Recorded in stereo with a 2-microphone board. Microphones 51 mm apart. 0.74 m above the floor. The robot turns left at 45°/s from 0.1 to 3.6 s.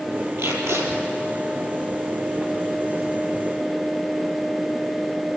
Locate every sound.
0.4 s tape being pulled: 65° right (ahead or behind), 4 m; by 0.9 s 85° right, 4 m